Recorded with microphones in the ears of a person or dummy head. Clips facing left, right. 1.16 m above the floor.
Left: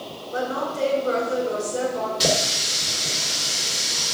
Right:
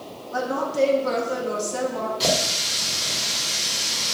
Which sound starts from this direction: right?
A woman speaking, at 0.3 s.